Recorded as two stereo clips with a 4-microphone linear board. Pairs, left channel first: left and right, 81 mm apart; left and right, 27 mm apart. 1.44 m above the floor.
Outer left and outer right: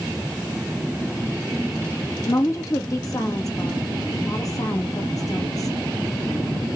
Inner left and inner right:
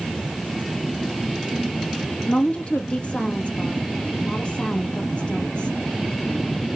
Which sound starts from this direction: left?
A woman speaking, at 2.3 s.